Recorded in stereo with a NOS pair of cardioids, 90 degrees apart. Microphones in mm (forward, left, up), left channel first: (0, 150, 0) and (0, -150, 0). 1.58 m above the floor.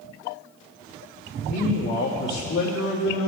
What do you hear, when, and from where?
1.5 s a man speaking: 60° left, 3.5 m